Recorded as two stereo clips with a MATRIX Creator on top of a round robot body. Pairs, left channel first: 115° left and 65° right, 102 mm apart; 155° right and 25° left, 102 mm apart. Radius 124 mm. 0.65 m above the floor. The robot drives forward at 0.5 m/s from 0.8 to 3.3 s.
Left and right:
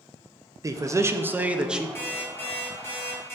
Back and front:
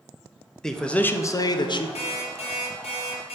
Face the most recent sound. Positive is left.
turn(degrees=180)